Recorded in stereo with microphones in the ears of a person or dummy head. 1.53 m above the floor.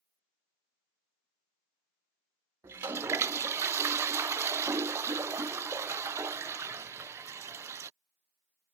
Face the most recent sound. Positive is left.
turn(degrees=-15)  # may be behind; listen again after turning